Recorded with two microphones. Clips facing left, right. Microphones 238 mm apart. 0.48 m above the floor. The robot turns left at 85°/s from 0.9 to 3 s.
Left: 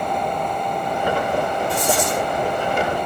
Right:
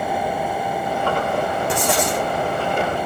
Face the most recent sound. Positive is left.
turn(degrees=160)